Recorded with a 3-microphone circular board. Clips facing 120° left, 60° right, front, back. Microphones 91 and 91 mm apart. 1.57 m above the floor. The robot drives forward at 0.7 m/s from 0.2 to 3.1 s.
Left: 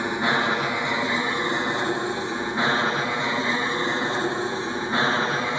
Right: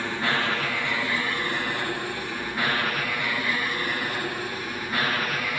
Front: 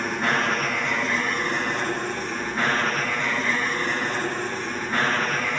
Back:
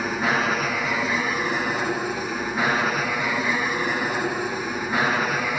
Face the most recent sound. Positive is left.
turn(degrees=110)